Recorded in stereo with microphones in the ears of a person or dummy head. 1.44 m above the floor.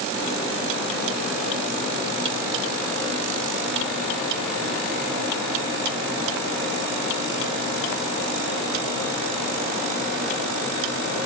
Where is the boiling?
No boiling in this recording.